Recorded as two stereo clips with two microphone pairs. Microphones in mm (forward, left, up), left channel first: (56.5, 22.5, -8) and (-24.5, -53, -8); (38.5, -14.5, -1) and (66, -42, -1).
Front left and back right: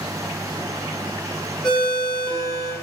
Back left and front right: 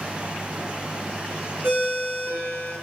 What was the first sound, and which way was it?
A ringtone, 40° right.